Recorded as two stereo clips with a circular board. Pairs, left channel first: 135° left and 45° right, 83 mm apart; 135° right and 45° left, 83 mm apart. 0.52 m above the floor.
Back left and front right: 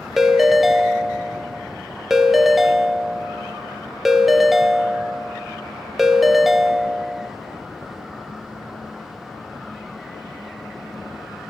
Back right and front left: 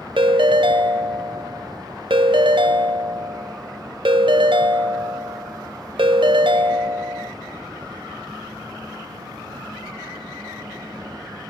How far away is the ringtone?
About 0.8 m.